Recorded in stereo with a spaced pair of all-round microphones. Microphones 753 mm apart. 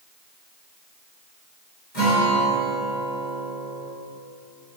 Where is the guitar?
70° left (ahead or behind), 3.5 m.